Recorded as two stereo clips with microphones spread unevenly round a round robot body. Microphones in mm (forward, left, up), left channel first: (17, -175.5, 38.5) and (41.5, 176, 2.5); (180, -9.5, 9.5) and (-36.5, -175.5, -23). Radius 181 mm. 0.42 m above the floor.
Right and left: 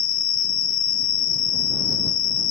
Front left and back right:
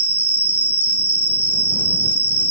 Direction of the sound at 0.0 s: 65° right.